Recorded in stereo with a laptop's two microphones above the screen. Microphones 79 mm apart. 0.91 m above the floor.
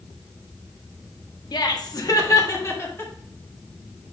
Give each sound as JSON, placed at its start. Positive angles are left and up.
{"t": 1.5, "sound": "laughter", "side_deg": 60, "distance_m": 1.2}